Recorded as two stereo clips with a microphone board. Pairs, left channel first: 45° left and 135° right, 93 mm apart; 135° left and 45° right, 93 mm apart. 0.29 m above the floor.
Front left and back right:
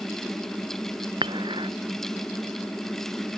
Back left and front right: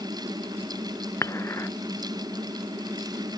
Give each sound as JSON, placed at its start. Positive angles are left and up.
{"t": 1.2, "sound": "dishes clattering", "azimuth_deg": -165}